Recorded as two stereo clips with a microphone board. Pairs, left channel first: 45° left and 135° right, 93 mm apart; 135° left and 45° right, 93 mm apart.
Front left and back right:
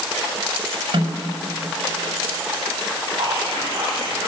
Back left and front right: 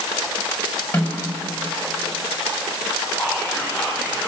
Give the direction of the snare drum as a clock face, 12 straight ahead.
5 o'clock.